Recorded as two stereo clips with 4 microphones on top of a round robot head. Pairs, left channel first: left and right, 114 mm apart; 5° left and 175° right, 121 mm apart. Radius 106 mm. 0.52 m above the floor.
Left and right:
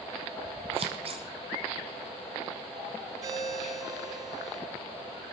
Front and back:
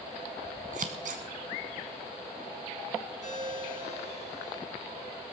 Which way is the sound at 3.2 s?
30° right.